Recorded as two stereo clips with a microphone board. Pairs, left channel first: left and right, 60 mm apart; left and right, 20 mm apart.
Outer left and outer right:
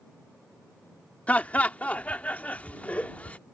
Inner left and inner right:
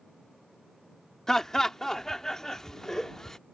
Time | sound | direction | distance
1.3 | laughter | 25° left (ahead or behind) | ?